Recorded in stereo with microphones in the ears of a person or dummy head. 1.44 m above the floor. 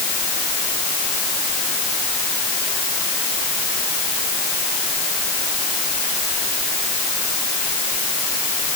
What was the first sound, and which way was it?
Only background noise.